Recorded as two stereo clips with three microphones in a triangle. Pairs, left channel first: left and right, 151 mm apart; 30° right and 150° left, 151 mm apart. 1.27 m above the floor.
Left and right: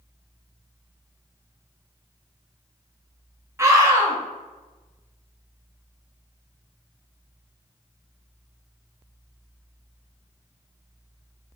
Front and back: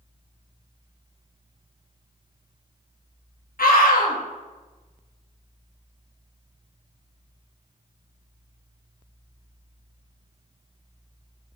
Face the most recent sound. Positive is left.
turn(degrees=-20)